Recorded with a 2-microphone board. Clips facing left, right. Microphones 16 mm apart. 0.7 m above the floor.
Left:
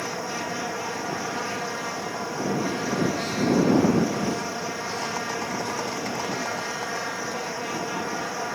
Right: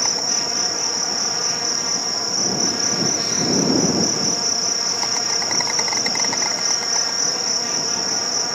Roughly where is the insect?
Right.